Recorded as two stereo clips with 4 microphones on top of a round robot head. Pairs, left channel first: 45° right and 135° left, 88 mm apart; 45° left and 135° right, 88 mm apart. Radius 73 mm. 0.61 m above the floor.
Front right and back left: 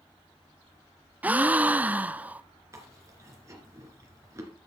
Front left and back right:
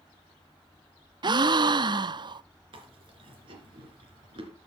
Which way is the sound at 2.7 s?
165° right.